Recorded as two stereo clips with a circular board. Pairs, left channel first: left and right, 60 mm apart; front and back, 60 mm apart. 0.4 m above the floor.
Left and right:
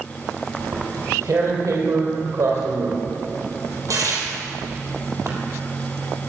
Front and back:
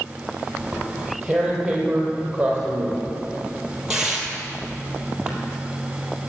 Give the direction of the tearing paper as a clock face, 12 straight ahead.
3 o'clock.